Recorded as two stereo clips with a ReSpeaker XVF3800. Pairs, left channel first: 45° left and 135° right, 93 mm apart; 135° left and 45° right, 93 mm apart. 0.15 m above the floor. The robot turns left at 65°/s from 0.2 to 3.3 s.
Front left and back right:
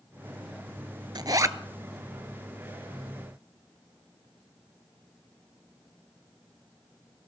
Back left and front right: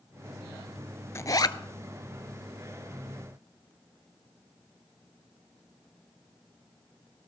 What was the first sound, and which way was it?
A zipper, 165° right.